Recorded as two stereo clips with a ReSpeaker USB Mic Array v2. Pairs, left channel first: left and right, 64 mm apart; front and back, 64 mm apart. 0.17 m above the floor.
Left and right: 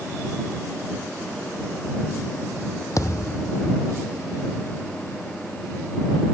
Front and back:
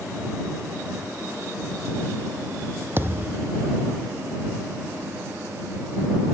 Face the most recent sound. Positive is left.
turn(degrees=125)